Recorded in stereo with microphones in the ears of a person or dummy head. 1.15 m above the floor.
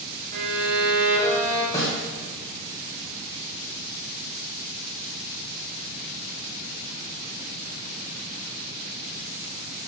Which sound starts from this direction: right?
A violin, at 0.3 s.